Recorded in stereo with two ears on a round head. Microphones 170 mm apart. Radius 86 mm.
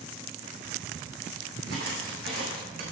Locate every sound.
1.7 s footsteps: 55° right (ahead or behind), 3.5 m; by 2.8 s 45° right (ahead or behind), 4 m